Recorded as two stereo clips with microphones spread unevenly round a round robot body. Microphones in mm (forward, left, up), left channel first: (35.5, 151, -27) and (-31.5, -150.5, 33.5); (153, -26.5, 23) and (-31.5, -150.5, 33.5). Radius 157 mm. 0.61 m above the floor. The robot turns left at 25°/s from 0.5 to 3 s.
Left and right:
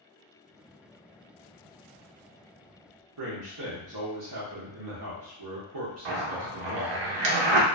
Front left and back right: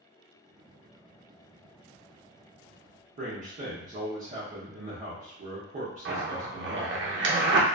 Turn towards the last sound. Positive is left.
turn(degrees=-105)